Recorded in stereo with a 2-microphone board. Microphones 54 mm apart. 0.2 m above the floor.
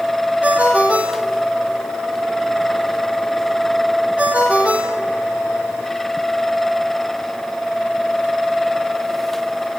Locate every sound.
0.4 s a ringtone: 25° right (ahead or behind), 4 m